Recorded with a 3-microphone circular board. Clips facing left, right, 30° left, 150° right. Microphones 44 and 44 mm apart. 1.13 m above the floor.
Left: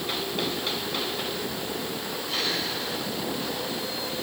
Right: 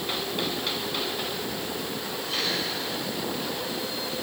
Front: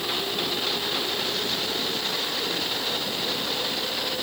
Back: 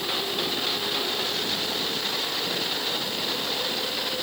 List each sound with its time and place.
Only background noise.